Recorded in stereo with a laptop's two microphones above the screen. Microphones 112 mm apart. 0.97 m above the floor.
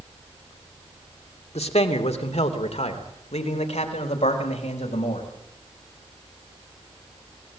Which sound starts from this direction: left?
A man speaking, at 1.6 s.